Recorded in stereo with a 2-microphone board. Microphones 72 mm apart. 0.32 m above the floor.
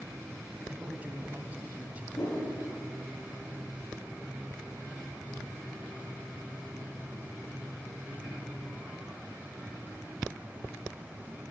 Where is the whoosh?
60° left (ahead or behind), 7.5 m.